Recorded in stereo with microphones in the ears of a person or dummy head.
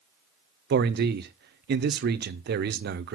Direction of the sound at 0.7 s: 50° right (ahead or behind).